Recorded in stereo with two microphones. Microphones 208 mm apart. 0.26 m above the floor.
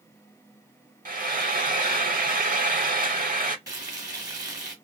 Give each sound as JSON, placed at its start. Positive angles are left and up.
{"t": 1.1, "sound": "frying", "side_deg": -45, "distance_m": 0.6}
{"t": 3.7, "sound": "frying", "side_deg": -20, "distance_m": 1.4}